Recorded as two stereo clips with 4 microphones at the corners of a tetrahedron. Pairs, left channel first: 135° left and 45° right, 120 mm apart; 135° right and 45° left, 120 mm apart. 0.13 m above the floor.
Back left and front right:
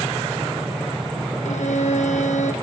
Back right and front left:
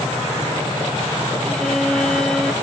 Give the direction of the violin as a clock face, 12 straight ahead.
7 o'clock.